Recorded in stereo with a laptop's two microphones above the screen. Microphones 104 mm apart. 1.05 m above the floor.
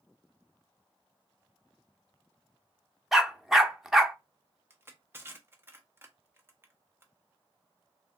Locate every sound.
3.1 s a dog barking: 5° right (ahead or behind), 0.5 m
4.7 s crushing: 20° right (ahead or behind), 0.7 m